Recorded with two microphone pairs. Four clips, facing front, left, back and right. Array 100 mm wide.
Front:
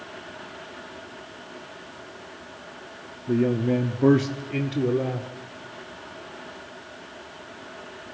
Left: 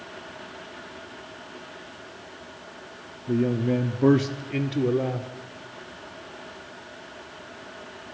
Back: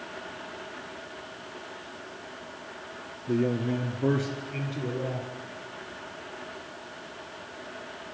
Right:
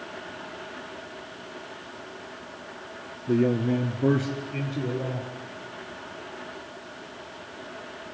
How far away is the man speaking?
About 1.1 m.